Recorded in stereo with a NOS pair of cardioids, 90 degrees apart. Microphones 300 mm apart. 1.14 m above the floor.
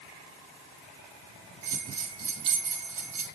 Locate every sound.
1.6 s a bell: 50° right, 5.5 m